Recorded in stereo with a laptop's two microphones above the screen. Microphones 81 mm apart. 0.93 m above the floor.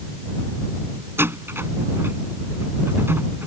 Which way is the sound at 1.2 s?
30° right (ahead or behind).